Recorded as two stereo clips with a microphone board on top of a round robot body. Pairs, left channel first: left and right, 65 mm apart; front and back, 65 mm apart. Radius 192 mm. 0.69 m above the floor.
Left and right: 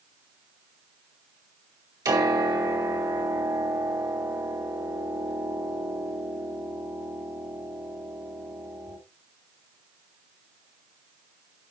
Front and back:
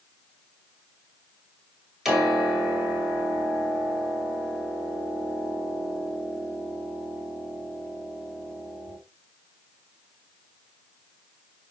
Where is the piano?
95° right, 5 m.